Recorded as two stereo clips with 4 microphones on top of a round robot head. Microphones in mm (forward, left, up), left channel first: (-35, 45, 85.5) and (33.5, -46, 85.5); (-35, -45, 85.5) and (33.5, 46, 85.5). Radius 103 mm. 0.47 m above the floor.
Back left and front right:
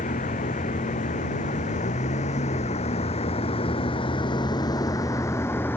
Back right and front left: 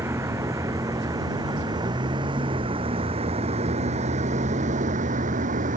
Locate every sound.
0.0 s a vehicle: 120° left; by 5.8 s 50° left